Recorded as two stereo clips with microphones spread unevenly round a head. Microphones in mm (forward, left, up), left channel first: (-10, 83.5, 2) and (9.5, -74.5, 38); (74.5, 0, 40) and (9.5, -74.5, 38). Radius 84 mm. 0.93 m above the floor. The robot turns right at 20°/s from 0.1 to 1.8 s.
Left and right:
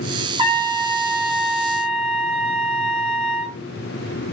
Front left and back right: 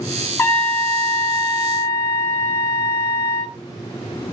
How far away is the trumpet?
About 1.2 m.